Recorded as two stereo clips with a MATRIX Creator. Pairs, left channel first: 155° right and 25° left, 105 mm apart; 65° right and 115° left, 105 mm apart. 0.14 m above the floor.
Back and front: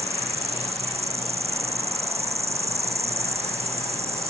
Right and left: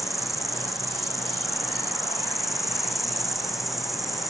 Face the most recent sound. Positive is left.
turn(degrees=25)